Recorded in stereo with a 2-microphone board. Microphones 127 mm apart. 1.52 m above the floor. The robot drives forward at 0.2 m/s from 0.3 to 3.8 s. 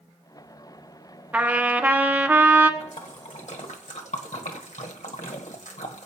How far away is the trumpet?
About 1.0 m.